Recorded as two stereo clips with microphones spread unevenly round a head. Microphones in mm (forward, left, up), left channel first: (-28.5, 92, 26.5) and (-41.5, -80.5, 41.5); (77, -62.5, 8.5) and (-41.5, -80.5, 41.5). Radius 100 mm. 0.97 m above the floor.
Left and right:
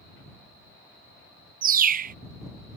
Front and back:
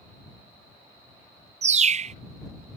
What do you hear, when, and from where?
1.6 s a bird: 135° right